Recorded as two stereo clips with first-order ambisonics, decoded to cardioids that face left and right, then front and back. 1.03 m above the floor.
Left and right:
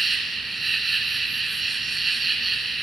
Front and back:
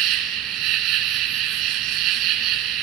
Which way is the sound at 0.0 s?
170° right.